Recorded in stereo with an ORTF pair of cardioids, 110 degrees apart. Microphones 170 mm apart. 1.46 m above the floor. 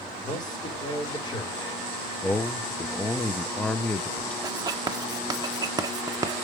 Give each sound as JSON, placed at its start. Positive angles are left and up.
{"t": 0.2, "sound": "a man speaking", "azimuth_deg": 25, "distance_m": 4.5}
{"t": 2.2, "sound": "a man speaking", "azimuth_deg": 5, "distance_m": 1.0}
{"t": 4.4, "sound": "writing", "azimuth_deg": -25, "distance_m": 1.3}